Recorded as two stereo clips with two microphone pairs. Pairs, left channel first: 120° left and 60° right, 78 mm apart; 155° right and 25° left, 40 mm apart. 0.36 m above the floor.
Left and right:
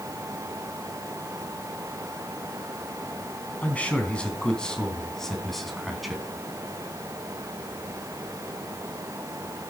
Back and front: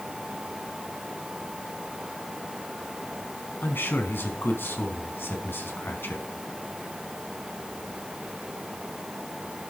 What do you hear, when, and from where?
3.6 s a man speaking: 170° right, 4 m; by 6.2 s 150° right, 4 m